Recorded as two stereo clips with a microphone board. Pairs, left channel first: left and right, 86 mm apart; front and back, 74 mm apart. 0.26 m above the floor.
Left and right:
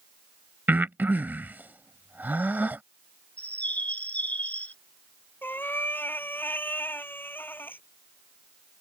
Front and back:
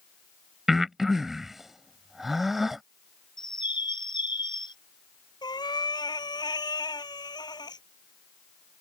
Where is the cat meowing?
20° left.